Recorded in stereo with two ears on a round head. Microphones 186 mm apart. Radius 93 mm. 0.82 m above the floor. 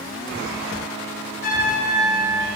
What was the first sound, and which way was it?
A trumpet, 50° left (ahead or behind).